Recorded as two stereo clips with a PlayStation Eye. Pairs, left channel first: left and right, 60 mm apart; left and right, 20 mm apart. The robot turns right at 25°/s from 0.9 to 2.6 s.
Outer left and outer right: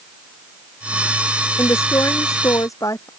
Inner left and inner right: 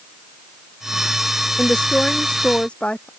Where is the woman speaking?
50° left (ahead or behind); by 3.1 s 70° left (ahead or behind).